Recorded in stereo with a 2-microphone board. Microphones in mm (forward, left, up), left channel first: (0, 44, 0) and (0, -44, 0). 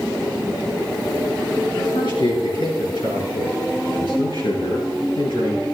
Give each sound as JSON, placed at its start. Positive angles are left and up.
{"t": 1.8, "sound": "a man speaking", "side_deg": 75, "distance_m": 6.0}